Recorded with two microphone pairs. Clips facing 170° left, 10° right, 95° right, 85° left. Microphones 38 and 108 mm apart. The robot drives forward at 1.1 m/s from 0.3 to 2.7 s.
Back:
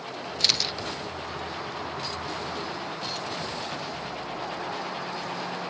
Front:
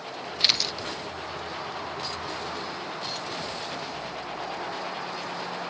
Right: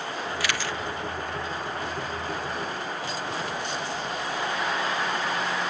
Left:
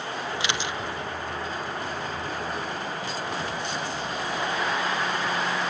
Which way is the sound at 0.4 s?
35° left.